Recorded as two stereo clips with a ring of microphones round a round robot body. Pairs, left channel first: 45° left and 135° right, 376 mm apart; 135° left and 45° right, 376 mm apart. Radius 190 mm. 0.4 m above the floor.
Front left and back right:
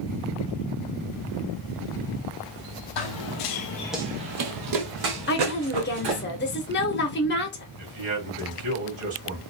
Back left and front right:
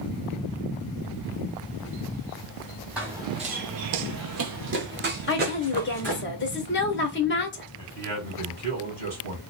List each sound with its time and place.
3.0 s running footsteps: 40° left, 1.0 m; by 6.2 s 115° right, 2.5 m
5.3 s a woman speaking: 90° left, 1.0 m
7.8 s a man speaking: 85° right, 2.5 m